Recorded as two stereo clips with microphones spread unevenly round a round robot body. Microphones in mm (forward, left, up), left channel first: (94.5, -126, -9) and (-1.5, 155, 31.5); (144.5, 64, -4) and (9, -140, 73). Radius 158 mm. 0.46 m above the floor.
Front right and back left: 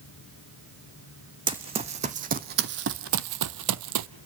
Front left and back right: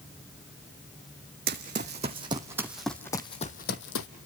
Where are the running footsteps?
Straight behind, 1.5 m; by 4.1 s 110° left, 0.9 m.